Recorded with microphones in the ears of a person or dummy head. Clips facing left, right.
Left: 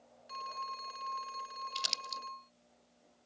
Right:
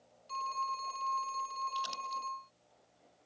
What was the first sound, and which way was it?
A phone ringing, 15° left (ahead or behind).